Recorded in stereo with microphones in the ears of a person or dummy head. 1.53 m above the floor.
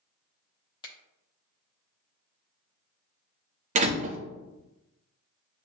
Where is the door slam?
40° right (ahead or behind), 0.5 m.